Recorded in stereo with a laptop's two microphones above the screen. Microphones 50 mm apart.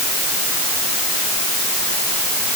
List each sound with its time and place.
Only background noise.